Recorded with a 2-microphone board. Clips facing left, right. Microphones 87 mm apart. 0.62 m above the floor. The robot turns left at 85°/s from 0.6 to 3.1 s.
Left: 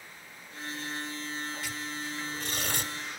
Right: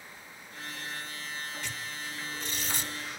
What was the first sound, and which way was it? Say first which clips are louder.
Tearing paper: left 2 dB; 5° left (ahead or behind).